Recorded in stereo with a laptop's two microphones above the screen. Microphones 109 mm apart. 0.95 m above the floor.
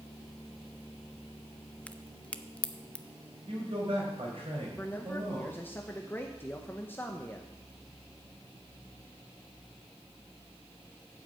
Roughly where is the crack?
Centre.